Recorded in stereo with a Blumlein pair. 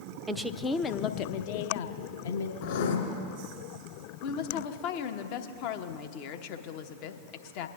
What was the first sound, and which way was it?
A woman speaking, 10° right.